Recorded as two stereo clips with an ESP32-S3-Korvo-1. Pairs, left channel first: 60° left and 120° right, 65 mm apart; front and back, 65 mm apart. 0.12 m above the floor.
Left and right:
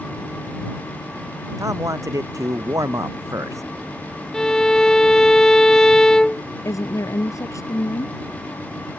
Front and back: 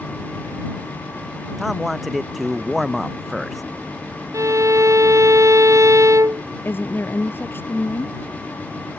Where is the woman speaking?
50° left.